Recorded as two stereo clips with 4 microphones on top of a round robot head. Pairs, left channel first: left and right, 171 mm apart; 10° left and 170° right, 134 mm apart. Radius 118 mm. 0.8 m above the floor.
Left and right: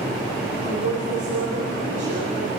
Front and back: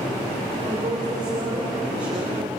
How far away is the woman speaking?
About 4 m.